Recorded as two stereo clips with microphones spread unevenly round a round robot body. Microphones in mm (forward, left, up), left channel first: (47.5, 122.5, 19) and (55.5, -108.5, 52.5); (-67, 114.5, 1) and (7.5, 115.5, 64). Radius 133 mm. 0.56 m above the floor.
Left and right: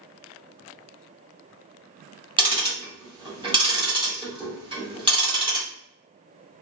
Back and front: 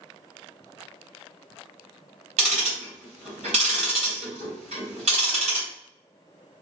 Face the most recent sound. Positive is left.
turn(degrees=-15)